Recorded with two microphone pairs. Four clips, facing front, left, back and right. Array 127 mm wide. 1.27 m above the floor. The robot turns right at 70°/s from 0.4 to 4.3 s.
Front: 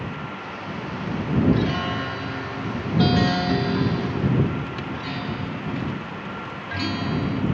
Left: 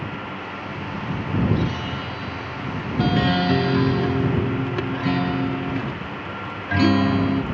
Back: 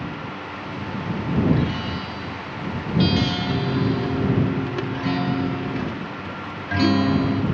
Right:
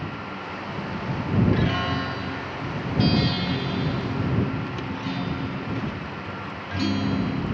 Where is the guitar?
70° right; by 7.4 s 125° left.